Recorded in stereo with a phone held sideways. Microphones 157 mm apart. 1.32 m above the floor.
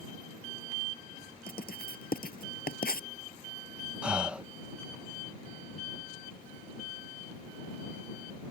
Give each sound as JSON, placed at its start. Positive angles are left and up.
{"t": 1.5, "sound": "writing", "side_deg": 75}
{"t": 4.0, "sound": "breathing", "side_deg": -5}